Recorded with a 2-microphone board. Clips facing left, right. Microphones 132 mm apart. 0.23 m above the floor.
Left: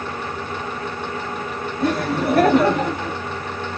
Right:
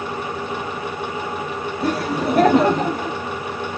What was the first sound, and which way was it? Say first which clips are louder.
Laughter: left 1 dB; 10° right (ahead or behind).